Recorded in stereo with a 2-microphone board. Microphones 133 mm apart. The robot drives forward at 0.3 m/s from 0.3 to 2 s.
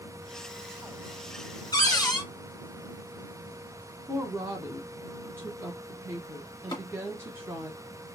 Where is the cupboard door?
30° left (ahead or behind), 0.8 m.